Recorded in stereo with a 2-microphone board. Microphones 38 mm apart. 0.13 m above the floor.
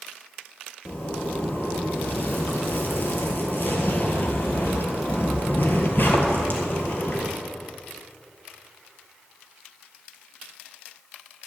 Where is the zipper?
60° left (ahead or behind), 1.8 m.